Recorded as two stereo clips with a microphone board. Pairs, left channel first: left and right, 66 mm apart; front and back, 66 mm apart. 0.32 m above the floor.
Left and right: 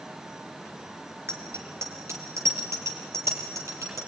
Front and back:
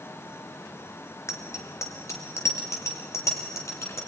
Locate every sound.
1.3 s a bicycle bell: 40° right, 3 m; by 4.0 s 45° right, 6.5 m